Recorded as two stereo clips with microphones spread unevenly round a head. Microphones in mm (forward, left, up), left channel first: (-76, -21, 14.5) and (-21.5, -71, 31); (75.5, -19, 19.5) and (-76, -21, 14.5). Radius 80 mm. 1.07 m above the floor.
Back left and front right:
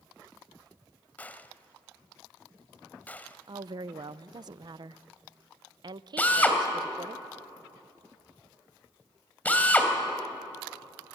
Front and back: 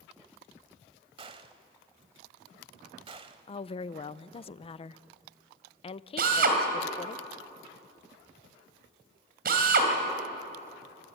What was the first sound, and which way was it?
A gunshot, 145° right.